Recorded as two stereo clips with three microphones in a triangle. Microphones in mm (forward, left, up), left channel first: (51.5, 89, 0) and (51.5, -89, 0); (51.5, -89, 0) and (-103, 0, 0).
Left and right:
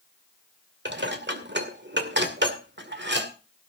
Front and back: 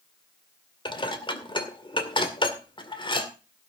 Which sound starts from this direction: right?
Dishes clattering, at 0.8 s.